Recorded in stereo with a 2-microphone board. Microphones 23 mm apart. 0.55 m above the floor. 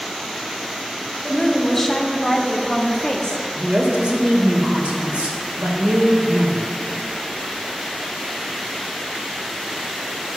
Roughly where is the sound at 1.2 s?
Centre.